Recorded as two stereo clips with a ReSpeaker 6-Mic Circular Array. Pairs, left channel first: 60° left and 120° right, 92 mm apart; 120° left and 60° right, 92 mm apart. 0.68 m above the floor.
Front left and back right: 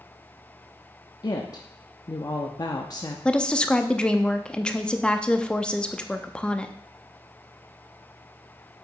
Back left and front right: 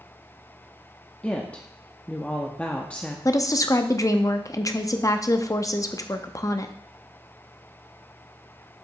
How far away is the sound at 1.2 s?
About 0.7 m.